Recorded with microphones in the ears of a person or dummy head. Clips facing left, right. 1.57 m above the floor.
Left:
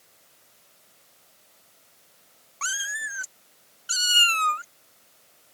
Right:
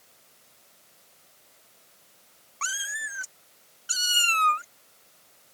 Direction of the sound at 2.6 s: 5° left (ahead or behind).